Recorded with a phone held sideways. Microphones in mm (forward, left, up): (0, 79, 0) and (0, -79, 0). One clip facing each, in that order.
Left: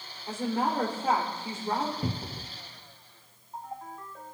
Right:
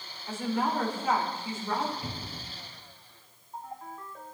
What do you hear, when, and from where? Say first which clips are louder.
0.3 s a woman speaking: left 1 dB; 35° left (ahead or behind), 3 m
2.0 s a cupboard door: left 5 dB; 50° left (ahead or behind), 0.7 m